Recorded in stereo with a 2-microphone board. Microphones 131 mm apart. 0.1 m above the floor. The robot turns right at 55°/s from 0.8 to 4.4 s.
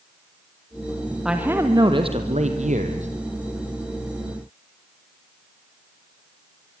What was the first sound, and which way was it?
A man speaking, 175° right.